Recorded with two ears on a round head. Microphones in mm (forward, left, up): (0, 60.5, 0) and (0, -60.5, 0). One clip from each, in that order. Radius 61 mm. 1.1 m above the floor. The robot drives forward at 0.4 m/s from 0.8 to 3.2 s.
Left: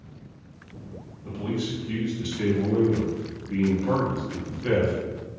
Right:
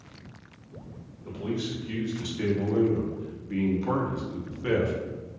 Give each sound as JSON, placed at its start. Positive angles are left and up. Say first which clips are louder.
{"t": 1.2, "sound": "a man speaking", "louder": "left 2 dB", "side_deg": -15, "distance_m": 1.4}